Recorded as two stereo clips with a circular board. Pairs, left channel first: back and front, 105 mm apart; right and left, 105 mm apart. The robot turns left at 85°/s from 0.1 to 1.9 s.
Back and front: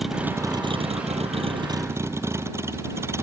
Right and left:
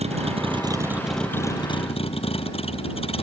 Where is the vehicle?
90° left; by 3.2 s 65° right.